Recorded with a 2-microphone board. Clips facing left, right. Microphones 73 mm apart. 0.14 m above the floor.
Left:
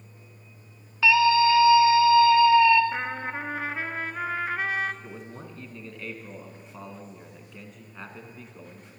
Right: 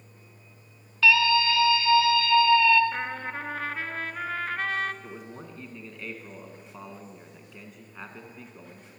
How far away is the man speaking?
About 1.1 m.